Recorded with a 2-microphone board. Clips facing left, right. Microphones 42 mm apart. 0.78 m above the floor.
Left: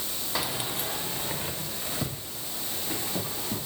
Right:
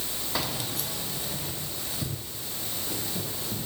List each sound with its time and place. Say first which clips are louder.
0.3 s keys jangling: left 1 dB; centre (ahead or behind), 1.1 m; by 3.6 s 70° left (ahead or behind), 5 m